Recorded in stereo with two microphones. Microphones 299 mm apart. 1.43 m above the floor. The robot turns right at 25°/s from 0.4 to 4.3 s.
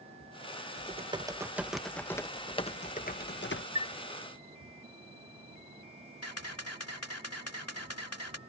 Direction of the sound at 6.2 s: 50° left (ahead or behind).